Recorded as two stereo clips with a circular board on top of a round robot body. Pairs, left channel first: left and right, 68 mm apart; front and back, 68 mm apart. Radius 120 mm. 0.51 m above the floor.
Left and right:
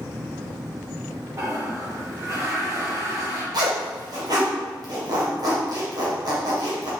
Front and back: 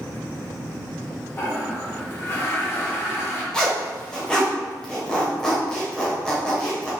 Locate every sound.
1.4 s a toilet flushing: 50° right, 3 m
3.5 s a zipper: 80° right, 3 m